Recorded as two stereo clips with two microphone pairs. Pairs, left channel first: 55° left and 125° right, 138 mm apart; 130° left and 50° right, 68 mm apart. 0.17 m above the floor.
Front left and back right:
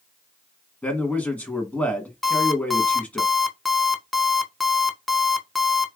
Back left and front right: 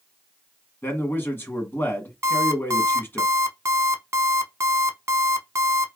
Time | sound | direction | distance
0.8 | a man speaking | 125° left | 1.2 m
2.2 | an alarm clock | 35° right | 0.6 m